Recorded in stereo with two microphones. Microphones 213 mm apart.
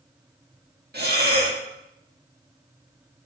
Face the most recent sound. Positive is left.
turn(degrees=-50)  # may be behind; listen again after turning